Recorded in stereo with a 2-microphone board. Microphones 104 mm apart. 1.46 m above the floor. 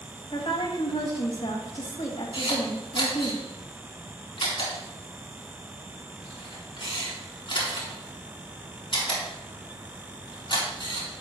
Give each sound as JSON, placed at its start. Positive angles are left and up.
{"t": 0.3, "sound": "a woman speaking", "side_deg": 60, "distance_m": 2.5}
{"t": 2.3, "sound": "a camera shutter", "side_deg": 55, "distance_m": 4.5}